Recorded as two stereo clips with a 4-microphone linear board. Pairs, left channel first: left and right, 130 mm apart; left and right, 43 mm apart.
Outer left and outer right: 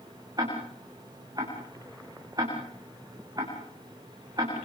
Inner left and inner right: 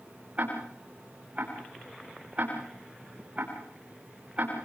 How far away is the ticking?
About 9.5 m.